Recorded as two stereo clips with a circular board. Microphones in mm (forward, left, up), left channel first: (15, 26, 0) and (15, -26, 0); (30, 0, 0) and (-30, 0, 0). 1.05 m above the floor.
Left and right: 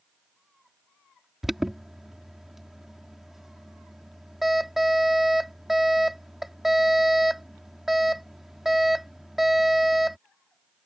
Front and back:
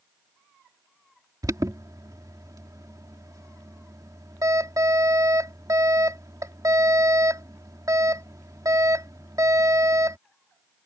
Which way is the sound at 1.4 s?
175° right.